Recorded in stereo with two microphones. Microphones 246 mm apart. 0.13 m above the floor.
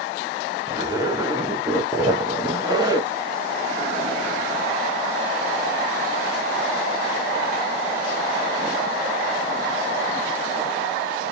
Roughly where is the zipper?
Centre.